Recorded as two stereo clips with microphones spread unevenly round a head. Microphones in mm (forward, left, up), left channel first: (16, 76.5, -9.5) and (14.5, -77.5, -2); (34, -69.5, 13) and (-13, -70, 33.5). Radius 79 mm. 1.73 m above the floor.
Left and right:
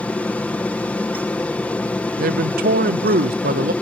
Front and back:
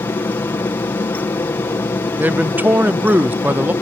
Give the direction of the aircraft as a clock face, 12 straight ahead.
12 o'clock.